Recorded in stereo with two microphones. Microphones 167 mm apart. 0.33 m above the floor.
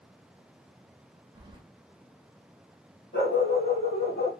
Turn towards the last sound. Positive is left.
turn(degrees=65)  # may be behind; listen again after turning